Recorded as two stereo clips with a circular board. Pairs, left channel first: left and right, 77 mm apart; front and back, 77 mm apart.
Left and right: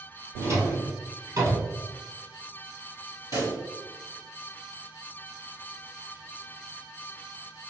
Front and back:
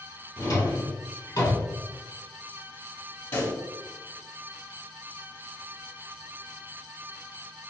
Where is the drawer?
40° right, 1.8 m.